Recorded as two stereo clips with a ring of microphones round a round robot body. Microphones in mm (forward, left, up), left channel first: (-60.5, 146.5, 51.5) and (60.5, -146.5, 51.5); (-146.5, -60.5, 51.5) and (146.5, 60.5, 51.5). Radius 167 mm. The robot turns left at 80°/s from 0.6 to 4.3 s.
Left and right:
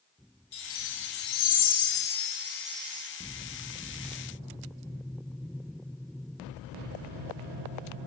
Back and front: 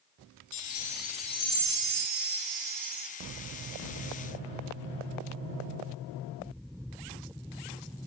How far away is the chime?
About 0.5 m.